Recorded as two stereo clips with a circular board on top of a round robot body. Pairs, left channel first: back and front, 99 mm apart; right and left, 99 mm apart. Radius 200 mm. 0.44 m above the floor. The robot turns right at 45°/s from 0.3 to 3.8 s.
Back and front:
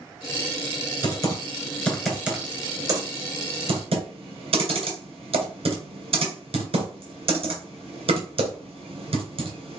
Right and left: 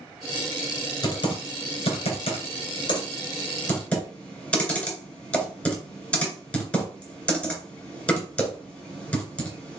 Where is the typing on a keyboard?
140° right, 2.5 m; by 9.8 s 15° right, 2.5 m.